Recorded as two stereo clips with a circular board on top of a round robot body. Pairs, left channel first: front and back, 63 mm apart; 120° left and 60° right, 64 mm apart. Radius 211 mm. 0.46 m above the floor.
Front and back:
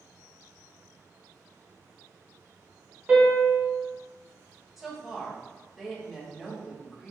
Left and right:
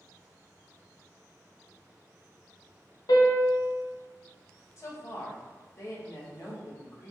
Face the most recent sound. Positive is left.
turn(degrees=95)